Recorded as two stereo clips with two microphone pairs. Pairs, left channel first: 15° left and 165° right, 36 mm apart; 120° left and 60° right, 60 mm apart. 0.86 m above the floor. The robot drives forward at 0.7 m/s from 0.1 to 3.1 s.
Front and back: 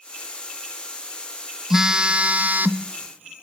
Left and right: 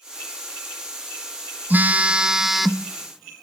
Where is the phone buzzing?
95° right, 0.8 m; by 3.4 s 155° right, 1.3 m.